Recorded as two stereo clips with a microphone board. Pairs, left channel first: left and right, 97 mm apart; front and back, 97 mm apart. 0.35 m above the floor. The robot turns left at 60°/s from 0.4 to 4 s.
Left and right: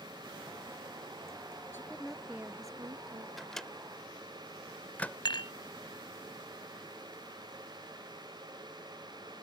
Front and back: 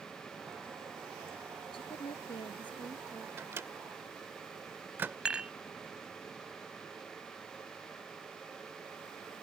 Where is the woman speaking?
25° left; by 3.3 s 70° right.